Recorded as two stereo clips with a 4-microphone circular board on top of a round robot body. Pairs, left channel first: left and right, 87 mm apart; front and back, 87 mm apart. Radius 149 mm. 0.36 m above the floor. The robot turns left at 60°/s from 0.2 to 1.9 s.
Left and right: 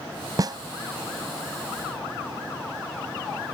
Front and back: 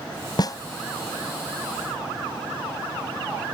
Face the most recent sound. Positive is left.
turn(degrees=-130)